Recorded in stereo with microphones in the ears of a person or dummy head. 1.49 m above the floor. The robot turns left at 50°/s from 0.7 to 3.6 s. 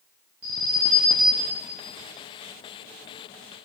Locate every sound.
0.4 s an alarm: 135° right, 1.4 m; by 1.5 s 170° right, 1.4 m